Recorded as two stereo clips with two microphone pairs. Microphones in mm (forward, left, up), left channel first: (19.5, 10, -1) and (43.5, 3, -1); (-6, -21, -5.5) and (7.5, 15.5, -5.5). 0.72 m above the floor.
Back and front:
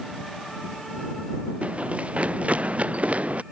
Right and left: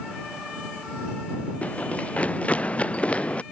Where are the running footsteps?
55° right; by 3.4 s 50° right.